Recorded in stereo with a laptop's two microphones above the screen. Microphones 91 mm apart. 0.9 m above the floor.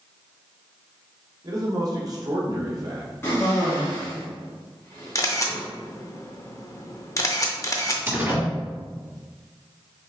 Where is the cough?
25° left (ahead or behind), 1.1 m.